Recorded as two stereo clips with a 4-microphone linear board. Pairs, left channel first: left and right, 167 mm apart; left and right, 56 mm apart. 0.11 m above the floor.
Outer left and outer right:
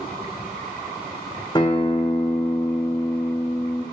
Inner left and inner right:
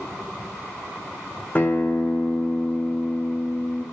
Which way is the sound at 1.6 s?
25° left (ahead or behind).